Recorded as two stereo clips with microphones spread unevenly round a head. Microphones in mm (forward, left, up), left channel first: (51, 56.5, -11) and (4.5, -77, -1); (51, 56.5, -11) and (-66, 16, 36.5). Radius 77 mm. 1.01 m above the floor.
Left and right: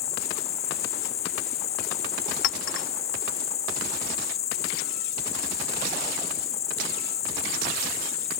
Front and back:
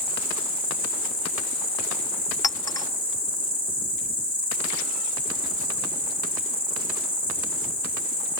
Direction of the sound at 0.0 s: 125° left.